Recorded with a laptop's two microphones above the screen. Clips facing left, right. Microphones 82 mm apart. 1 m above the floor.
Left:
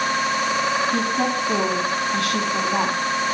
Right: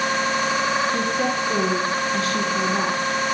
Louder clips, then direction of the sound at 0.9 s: Left 1 dB; 70° left (ahead or behind).